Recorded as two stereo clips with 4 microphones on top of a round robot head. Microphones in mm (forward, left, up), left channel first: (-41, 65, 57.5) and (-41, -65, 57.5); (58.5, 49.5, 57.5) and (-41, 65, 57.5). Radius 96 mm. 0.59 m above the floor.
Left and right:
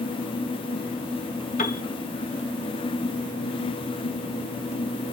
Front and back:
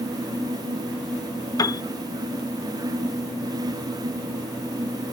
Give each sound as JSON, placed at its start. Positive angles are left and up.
{"t": 1.6, "sound": "a piano", "azimuth_deg": 45, "distance_m": 0.5}